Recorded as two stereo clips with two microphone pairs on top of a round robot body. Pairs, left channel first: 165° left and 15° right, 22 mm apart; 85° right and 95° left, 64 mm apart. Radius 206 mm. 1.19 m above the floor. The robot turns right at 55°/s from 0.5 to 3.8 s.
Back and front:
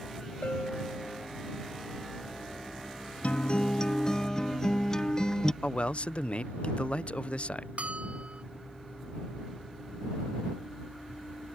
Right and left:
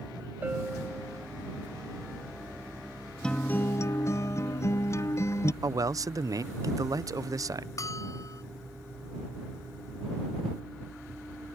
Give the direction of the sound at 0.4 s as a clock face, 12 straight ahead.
7 o'clock.